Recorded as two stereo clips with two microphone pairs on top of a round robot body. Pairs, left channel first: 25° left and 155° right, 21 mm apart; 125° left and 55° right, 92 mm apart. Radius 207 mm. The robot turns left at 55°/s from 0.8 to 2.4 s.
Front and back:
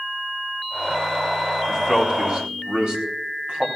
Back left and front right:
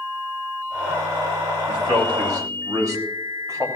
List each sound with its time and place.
1.7 s a man speaking: 60° right, 3 m; by 3.7 s 100° right, 3 m